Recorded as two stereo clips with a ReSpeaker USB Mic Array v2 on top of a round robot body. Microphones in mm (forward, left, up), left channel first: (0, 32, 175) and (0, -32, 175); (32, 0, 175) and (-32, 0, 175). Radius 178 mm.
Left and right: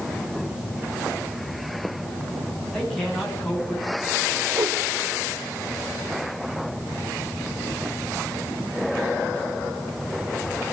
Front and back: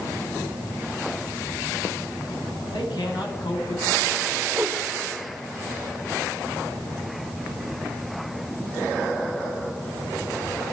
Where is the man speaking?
5° left, 6.5 m.